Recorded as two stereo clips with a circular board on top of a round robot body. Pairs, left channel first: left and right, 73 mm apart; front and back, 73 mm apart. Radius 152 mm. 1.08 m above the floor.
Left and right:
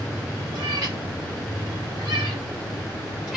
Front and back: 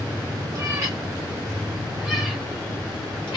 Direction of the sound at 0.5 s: 130° right.